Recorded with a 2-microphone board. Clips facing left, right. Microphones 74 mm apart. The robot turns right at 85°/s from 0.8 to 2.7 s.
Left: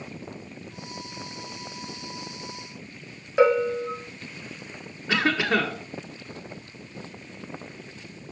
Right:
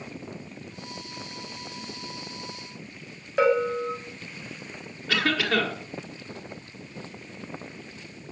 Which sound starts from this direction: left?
A cough, at 5.1 s.